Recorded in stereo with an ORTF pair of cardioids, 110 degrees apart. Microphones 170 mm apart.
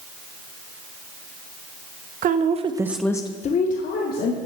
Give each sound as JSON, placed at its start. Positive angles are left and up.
{"t": 2.2, "sound": "a woman speaking", "azimuth_deg": -55, "distance_m": 1.1}